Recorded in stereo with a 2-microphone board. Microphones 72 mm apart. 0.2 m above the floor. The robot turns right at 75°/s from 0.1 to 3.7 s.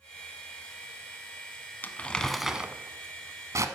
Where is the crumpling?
30° left (ahead or behind), 1.0 m; by 3.6 s 45° right (ahead or behind), 1.0 m.